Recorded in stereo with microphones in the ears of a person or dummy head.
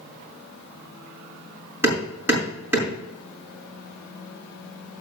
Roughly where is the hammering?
Centre.